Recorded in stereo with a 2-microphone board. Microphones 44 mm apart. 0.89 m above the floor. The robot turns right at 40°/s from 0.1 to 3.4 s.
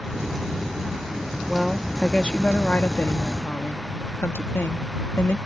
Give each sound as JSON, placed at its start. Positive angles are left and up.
{"t": 1.5, "sound": "a woman speaking", "azimuth_deg": -5}